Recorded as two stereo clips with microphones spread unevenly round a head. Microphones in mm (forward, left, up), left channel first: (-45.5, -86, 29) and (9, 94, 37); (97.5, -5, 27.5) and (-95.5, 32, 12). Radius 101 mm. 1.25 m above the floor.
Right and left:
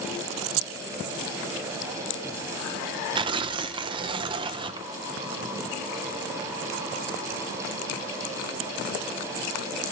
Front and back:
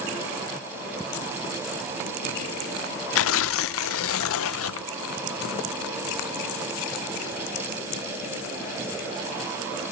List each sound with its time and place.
3.1 s tearing paper: 5° left, 0.5 m